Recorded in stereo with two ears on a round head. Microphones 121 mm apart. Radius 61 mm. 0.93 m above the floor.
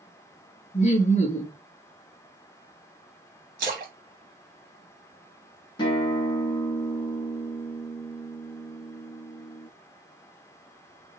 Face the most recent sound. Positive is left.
turn(degrees=40)  # may be behind; listen again after turning